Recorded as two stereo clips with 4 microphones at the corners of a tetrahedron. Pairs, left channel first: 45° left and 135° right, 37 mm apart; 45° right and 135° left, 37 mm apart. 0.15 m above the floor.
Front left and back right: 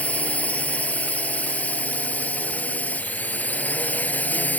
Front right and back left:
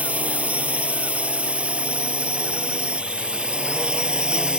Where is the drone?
90° left; by 4.6 s 75° left.